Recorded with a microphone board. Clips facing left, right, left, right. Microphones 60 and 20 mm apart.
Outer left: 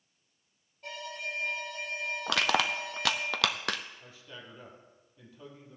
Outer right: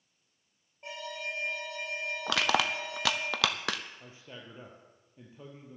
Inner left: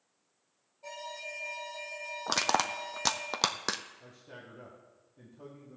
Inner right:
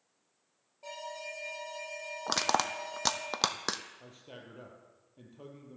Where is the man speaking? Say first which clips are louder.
Even, even; 25° right (ahead or behind), 3 m.